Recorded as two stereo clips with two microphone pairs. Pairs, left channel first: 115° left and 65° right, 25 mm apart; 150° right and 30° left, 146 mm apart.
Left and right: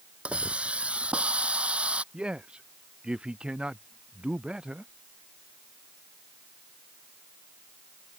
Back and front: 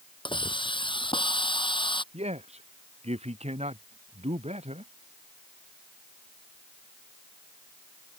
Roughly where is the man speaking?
Ahead.